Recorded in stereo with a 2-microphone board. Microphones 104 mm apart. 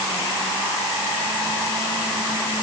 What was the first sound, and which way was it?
Only background noise.